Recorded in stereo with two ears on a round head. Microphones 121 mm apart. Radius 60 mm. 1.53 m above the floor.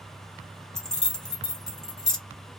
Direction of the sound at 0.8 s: 5° left (ahead or behind).